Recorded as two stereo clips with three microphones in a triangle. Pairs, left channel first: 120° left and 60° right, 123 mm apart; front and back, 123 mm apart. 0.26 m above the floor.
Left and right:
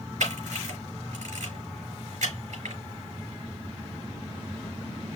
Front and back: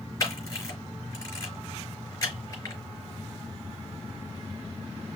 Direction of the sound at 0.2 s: 65° right.